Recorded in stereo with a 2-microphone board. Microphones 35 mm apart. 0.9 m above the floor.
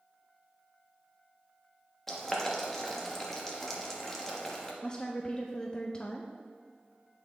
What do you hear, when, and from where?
2.1 s boiling: 10° left (ahead or behind), 1.1 m
4.8 s a woman speaking: 25° left (ahead or behind), 0.5 m